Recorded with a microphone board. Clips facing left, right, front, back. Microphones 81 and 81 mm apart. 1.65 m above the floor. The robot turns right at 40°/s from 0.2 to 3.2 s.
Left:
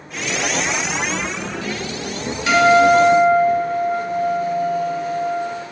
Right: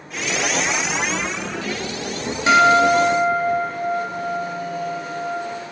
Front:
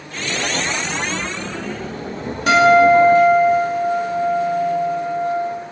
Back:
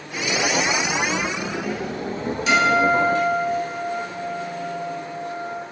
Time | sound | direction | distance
2.5 | a guitar | 30° right | 1.8 m